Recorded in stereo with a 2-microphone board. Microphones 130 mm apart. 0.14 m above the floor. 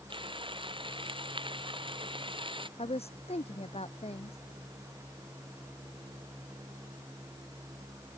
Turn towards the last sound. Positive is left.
turn(degrees=50)  # may be behind; listen again after turning